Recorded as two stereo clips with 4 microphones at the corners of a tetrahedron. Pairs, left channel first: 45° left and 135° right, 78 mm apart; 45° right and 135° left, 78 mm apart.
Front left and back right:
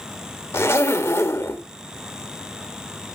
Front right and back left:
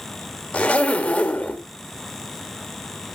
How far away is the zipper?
About 1.5 m.